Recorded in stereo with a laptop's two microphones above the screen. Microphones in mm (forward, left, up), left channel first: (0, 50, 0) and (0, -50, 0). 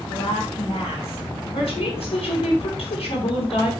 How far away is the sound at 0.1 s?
About 1.9 m.